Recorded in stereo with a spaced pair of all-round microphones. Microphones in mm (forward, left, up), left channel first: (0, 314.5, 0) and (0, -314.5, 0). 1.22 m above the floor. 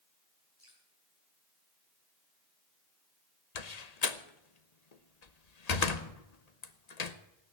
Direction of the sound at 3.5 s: 85° left.